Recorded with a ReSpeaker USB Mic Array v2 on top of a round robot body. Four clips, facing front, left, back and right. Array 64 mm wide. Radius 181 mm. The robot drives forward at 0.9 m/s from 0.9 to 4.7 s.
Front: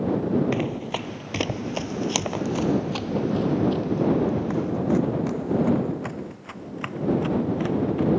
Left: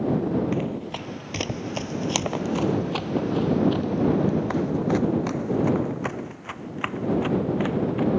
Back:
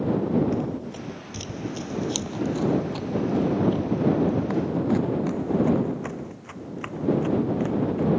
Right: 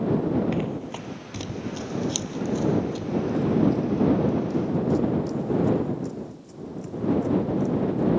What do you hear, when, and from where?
0.5 s running footsteps: 5° right; by 8.1 s 80° left